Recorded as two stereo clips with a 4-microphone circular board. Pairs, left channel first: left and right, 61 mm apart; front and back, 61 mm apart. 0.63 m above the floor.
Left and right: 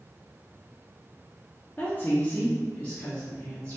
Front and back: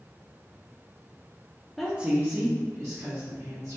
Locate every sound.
1.8 s a woman speaking: 90° left, 0.6 m; by 3.8 s 160° left, 2.0 m